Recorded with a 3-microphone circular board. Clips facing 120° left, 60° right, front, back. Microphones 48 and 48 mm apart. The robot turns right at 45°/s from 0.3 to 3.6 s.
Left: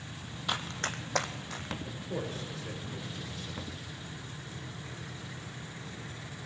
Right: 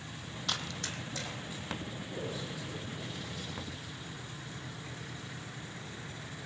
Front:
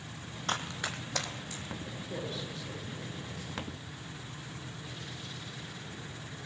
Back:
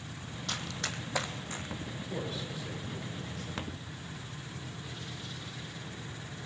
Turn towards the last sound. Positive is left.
turn(degrees=150)